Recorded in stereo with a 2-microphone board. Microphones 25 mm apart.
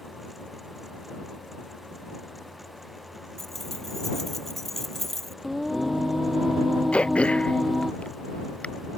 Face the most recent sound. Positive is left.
turn(degrees=45)  # may be behind; listen again after turning